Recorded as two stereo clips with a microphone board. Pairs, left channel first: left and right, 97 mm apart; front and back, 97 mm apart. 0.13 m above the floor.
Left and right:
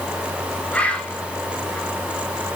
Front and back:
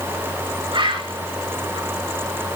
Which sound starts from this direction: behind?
A bird, at 0.7 s.